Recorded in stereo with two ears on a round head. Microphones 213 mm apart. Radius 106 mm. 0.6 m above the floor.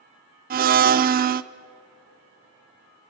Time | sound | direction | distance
0.5 | a blender | 40° right (ahead or behind) | 0.7 m